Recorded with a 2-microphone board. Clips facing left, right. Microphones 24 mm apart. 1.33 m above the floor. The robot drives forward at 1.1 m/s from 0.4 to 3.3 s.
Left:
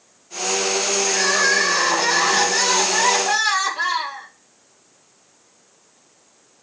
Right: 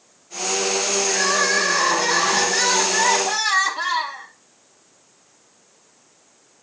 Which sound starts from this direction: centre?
Crying, at 1.1 s.